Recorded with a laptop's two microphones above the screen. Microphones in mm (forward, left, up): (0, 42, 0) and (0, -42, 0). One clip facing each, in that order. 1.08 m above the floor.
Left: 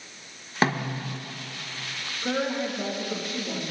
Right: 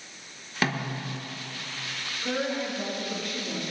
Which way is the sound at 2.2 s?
25° left (ahead or behind).